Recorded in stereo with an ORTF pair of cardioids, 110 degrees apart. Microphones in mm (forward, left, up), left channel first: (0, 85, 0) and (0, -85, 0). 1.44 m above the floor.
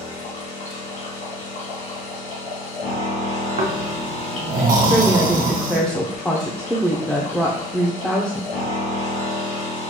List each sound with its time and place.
0.0 s a machine running: 50° left, 2.5 m
3.6 s snoring: 55° right, 1.0 m
4.9 s a woman speaking: 5° left, 0.7 m